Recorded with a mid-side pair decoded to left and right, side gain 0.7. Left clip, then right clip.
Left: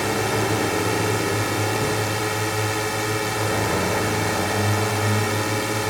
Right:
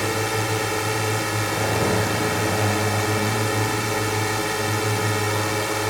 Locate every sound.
0.0 s a drone: 5° right